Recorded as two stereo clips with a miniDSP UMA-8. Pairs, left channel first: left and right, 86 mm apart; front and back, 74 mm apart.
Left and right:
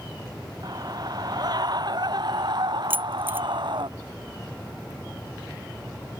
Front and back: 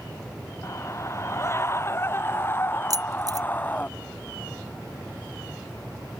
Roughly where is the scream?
Ahead right.